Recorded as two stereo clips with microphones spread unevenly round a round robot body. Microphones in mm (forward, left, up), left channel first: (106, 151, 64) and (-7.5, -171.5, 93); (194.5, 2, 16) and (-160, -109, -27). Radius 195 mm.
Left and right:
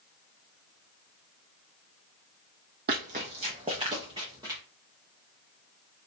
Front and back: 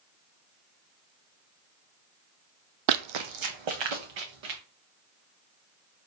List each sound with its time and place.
2.9 s running footsteps: 170° right, 0.5 m; by 4.6 s 170° left, 1.7 m